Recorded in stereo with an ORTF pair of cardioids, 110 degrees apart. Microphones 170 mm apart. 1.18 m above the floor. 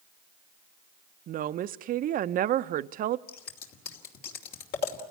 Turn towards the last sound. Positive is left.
turn(degrees=70)